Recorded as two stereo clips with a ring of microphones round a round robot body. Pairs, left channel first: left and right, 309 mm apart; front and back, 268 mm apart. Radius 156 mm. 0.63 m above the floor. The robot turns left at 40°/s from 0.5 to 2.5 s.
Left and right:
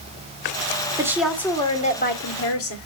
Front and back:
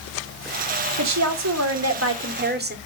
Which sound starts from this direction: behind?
A woman speaking, at 1.0 s.